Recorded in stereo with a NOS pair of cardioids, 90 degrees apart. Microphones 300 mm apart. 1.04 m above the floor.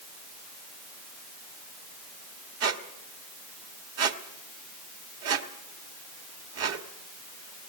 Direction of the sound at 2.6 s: 55° right.